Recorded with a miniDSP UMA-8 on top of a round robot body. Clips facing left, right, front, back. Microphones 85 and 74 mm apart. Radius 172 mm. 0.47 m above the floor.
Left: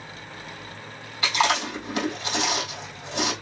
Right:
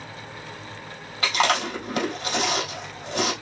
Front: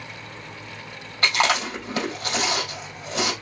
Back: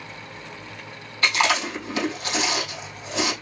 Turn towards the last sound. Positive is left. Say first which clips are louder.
# right 1 dB, even
turn(degrees=-45)